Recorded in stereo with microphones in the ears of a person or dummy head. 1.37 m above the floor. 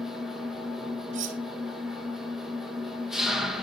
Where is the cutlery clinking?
35° right (ahead or behind), 1.1 m.